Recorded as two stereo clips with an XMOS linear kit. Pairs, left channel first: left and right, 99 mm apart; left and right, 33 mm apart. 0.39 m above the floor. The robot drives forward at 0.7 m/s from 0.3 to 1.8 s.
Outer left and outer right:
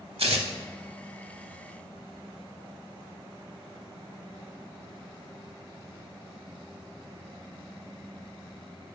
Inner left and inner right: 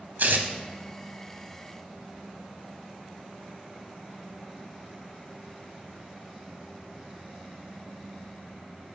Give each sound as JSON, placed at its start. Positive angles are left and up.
{"t": 0.2, "sound": "tearing paper", "side_deg": -85, "distance_m": 0.7}